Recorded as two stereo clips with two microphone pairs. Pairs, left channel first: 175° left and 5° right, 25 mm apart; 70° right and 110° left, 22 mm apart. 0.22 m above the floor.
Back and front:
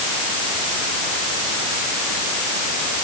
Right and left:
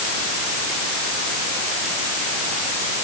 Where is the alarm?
I don't hear an alarm.